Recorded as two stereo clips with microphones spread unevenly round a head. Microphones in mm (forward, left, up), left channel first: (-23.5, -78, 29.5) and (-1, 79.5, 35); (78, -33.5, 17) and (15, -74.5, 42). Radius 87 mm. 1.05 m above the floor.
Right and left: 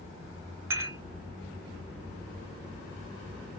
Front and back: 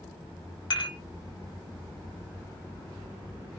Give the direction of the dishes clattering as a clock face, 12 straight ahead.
12 o'clock.